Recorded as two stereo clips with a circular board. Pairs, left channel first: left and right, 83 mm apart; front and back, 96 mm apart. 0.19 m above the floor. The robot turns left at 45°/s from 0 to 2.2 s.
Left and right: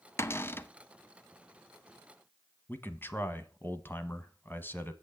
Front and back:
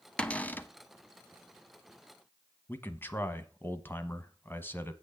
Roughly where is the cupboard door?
Left.